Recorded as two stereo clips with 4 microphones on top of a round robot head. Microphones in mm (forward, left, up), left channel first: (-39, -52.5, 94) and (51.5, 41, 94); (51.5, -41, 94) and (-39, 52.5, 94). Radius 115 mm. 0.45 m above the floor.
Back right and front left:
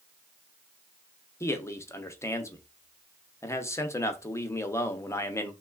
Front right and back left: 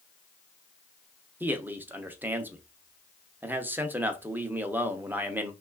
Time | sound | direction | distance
1.4 | a man speaking | 170° right | 0.8 m